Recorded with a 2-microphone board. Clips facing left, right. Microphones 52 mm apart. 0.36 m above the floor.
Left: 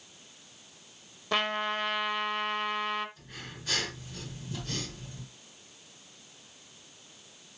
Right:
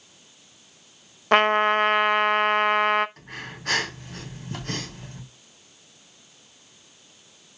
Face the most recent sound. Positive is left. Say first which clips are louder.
# right 7 dB
turn(degrees=-65)  # may be behind; listen again after turning